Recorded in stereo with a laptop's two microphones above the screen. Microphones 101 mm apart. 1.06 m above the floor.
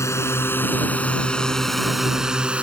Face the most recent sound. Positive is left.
turn(degrees=-15)  # may be behind; listen again after turning